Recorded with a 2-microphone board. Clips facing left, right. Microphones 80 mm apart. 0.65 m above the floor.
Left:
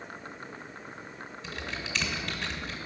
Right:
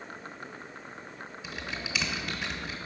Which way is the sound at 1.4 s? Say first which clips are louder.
Even; 10° right (ahead or behind).